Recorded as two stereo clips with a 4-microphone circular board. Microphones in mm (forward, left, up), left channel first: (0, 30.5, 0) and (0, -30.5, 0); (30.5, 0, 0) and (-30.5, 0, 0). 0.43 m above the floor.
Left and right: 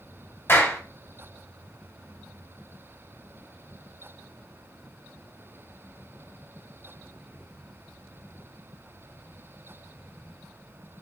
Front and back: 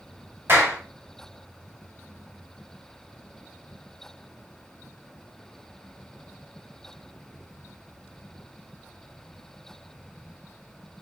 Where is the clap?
135° left, 2.5 m.